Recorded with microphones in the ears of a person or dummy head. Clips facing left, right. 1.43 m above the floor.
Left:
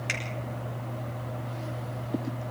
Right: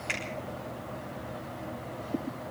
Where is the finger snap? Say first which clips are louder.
Right 2 dB; 20° left (ahead or behind), 9.5 m.